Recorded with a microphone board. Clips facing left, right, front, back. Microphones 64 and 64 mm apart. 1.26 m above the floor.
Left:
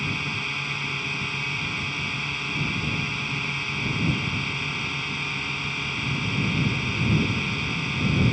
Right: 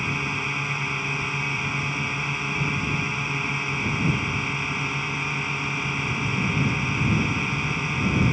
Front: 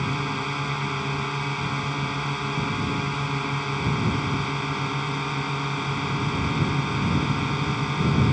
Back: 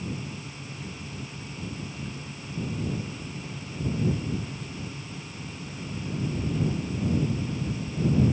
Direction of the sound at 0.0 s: 15° right.